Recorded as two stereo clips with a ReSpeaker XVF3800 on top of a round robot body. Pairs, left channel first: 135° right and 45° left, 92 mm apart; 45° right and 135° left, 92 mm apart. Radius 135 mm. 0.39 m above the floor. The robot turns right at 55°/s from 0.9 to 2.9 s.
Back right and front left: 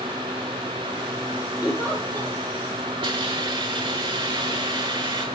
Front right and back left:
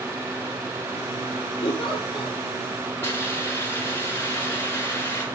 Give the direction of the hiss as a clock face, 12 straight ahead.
11 o'clock.